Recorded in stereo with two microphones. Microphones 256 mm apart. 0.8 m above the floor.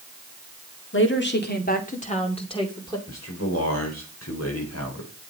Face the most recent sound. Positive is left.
turn(degrees=80)